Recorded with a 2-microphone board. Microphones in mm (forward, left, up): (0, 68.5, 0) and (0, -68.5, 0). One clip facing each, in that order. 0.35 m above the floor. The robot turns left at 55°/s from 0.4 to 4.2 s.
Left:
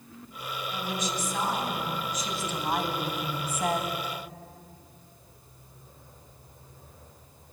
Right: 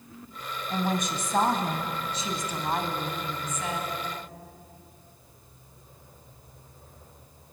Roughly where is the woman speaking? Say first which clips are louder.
Right 6 dB; ahead right.